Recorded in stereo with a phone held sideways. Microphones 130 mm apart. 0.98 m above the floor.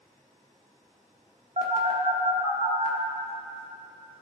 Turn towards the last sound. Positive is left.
turn(degrees=-60)  # may be behind; listen again after turning